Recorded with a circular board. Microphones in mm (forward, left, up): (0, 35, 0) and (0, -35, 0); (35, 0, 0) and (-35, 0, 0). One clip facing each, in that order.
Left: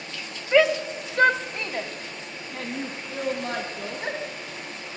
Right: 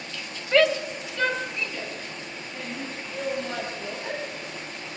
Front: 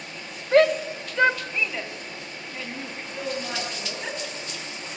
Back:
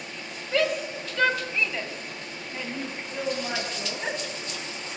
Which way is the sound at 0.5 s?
15° left.